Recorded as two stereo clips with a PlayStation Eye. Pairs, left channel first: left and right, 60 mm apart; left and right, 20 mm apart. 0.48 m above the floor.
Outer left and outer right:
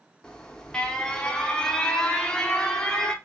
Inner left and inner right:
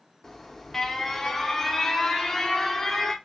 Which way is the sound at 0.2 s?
15° left (ahead or behind).